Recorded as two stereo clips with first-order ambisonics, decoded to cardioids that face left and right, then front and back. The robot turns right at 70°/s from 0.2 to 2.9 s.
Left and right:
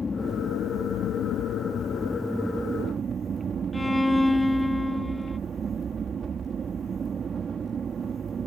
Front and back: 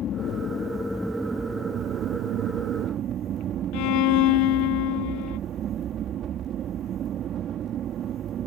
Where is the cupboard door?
No cupboard door in this recording.